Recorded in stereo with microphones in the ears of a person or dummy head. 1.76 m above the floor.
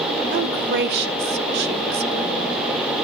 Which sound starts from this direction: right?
A woman speaking, at 0.3 s.